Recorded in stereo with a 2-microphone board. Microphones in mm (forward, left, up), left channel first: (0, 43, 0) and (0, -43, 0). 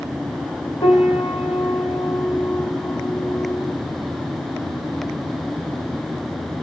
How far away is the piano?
About 1.7 m.